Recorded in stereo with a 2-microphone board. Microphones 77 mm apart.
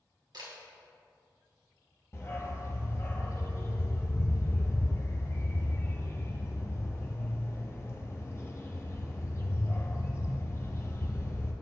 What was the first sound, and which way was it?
A camera shutter, 70° right (ahead or behind).